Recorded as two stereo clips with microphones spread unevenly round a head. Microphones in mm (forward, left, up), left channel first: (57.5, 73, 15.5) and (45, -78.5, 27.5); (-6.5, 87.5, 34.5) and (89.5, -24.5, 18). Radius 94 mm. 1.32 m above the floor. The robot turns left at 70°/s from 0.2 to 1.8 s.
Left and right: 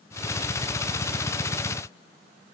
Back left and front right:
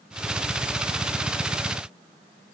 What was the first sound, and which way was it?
Only background noise.